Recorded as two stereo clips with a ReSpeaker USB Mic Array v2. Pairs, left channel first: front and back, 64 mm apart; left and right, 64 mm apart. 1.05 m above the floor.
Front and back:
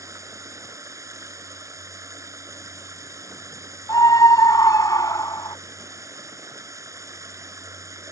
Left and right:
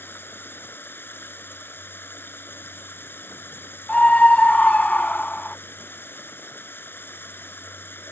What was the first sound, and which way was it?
Running water, 145° left.